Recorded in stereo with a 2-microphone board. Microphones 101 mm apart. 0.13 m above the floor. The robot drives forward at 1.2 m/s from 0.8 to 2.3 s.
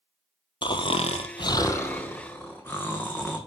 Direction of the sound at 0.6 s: 50° left (ahead or behind).